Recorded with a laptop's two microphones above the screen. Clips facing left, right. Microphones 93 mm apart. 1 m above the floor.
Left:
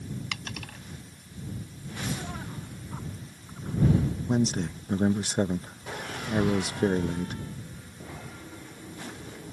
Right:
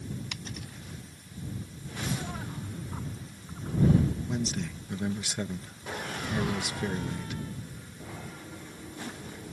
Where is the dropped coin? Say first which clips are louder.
Left 3 dB; 80° left.